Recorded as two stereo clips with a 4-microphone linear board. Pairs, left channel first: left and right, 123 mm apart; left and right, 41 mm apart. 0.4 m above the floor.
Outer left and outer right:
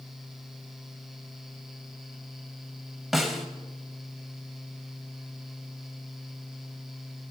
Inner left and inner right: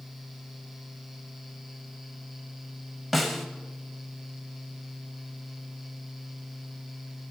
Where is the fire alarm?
I don't hear a fire alarm.